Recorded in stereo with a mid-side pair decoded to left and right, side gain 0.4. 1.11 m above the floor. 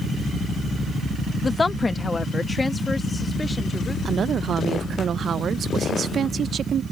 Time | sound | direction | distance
1.4 | a woman speaking | 30° left | ?
4.0 | a woman speaking | 60° right | ?